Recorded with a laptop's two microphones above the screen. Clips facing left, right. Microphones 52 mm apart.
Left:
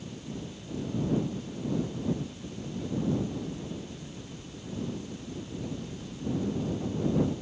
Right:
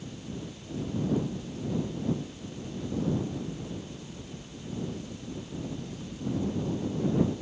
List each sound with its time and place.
Only background noise.